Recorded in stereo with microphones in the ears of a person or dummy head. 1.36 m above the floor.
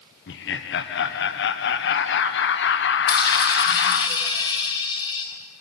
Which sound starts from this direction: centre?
A dropped coin, at 3.1 s.